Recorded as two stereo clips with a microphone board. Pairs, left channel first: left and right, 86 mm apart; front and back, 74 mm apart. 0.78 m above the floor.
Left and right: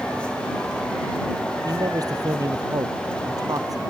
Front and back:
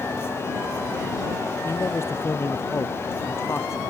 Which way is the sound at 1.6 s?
50° right.